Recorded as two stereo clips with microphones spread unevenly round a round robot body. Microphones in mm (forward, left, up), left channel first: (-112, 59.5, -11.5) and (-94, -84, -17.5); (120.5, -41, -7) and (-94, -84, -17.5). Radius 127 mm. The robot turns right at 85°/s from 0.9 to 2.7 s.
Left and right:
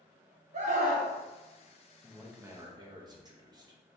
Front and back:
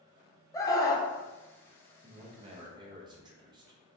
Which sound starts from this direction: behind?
A man speaking, at 2.0 s.